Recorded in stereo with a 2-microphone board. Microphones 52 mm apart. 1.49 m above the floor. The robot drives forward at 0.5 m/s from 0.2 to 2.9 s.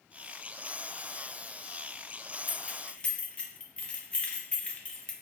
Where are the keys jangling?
30° left (ahead or behind), 0.5 m; by 5.1 s 20° left (ahead or behind), 0.7 m.